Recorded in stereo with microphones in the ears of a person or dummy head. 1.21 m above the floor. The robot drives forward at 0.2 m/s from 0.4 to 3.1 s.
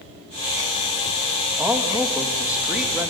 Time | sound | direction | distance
1.6 | a man speaking | 5° right (ahead or behind) | 1.5 m